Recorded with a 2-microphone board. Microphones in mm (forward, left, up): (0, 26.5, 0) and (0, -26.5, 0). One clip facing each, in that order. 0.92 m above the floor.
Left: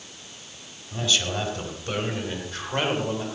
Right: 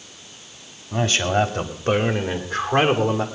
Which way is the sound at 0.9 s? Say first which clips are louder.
Right 6 dB; 50° right (ahead or behind).